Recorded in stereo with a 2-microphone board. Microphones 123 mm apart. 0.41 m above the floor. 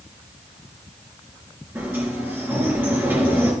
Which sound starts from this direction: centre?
A sliding door, at 1.8 s.